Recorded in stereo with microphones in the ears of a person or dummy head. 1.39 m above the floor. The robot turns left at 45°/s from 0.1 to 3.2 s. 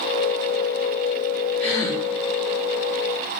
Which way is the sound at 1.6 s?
Centre (ahead or behind).